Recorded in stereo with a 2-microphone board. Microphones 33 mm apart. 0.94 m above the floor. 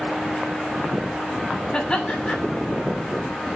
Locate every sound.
1.7 s laughter: 20° left (ahead or behind), 7.5 m